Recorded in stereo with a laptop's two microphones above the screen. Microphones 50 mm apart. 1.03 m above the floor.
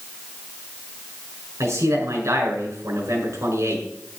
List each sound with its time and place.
1.6 s a man speaking: 85° right, 6 m